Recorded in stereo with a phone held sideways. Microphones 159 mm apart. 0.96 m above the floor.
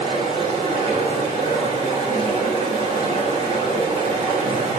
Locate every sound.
0.0 s running water: 40° right (ahead or behind), 3.5 m